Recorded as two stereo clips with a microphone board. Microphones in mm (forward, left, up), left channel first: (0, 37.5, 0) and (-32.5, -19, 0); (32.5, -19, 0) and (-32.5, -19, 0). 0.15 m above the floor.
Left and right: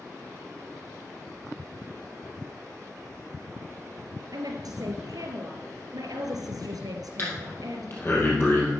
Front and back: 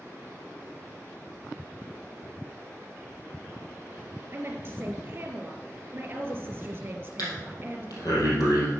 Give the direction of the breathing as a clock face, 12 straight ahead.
12 o'clock.